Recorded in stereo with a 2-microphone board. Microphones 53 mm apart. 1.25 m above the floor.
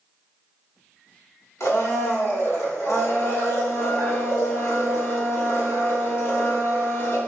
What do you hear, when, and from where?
1.6 s a blender: 75° left (ahead or behind), 1.8 m